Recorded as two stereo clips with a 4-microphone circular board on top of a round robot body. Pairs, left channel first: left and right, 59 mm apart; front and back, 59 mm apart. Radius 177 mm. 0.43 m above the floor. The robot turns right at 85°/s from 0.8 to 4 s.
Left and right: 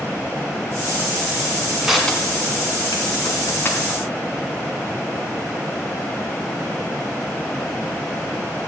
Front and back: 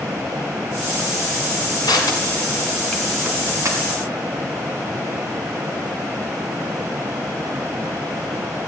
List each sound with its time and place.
1.8 s crushing: 10° right, 2.5 m; by 4.0 s 175° left, 2.5 m